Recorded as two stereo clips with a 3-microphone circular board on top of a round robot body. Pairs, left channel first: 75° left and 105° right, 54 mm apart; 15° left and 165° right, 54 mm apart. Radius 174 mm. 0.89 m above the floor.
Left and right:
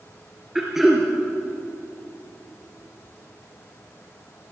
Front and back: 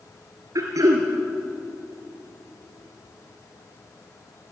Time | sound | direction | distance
0.6 | throat clearing | 170° left | 3 m